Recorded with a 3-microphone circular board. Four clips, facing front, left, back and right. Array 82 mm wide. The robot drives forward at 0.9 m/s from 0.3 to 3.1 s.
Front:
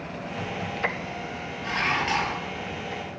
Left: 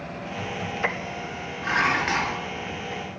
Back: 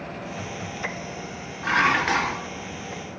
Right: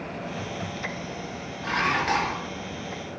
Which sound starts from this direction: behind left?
Dishes clattering, at 1.6 s.